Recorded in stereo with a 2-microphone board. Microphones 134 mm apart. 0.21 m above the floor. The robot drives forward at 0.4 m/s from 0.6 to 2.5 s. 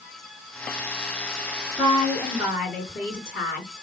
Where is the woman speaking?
10° right (ahead or behind), 2 m.